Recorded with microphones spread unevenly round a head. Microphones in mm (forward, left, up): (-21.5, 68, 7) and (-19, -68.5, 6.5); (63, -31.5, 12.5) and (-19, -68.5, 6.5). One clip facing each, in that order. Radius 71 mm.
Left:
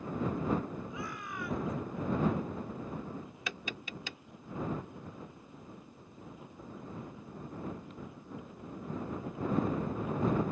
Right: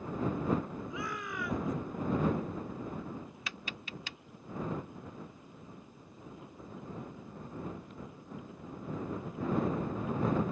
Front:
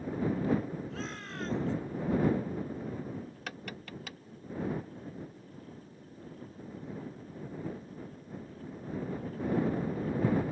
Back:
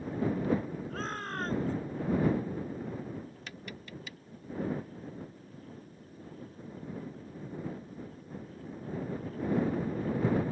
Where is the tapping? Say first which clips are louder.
Left 3 dB, front 2 dB; 85° left.